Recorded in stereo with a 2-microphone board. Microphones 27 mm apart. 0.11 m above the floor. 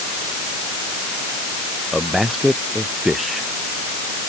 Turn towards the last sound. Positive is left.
turn(degrees=-15)  # may be behind; listen again after turning